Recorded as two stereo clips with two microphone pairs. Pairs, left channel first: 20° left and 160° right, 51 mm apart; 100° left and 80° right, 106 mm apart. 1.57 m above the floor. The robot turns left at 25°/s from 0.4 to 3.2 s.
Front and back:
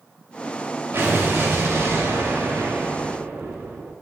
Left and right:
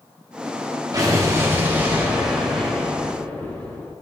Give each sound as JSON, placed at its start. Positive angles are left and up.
{"t": 0.9, "sound": "an explosion", "azimuth_deg": -130, "distance_m": 2.5}